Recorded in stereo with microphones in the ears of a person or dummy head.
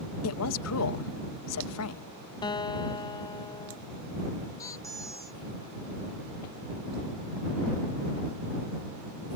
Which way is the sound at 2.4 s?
20° left (ahead or behind).